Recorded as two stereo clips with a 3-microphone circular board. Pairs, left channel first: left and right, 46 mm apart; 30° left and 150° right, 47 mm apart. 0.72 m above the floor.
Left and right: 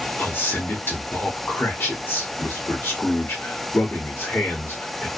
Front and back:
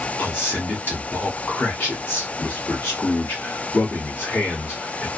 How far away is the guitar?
No guitar in this recording.